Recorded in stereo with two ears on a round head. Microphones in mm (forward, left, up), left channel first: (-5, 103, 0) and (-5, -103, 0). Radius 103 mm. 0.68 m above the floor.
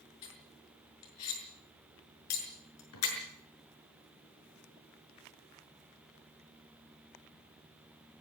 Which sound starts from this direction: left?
Cutlery clinking, at 0.2 s.